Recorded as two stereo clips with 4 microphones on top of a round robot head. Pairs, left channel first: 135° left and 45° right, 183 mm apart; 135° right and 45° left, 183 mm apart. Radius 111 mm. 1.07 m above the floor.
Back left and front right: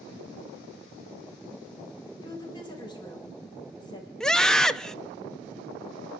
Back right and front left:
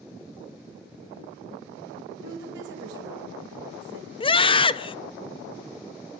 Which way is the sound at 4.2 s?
145° right.